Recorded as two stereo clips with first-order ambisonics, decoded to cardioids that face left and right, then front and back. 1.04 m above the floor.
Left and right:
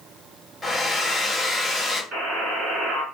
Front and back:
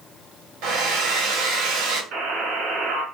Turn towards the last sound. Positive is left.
turn(degrees=-135)